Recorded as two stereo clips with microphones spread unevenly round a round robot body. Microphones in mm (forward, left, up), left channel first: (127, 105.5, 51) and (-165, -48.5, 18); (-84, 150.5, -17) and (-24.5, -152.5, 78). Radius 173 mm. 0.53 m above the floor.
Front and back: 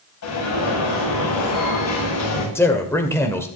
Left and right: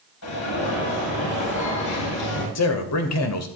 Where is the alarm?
70° left, 9 m.